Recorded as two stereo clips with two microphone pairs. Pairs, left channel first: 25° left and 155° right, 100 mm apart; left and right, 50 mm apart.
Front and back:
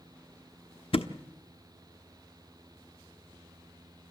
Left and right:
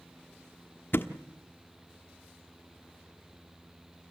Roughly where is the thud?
Ahead left.